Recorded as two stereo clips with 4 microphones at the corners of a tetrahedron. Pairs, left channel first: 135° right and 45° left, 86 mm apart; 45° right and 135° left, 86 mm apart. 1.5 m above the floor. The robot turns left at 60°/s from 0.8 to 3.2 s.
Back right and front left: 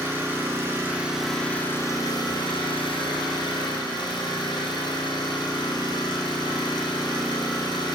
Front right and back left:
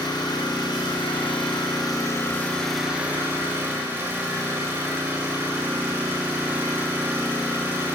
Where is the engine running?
20° right, 4 m; by 8.0 s 160° right, 4 m.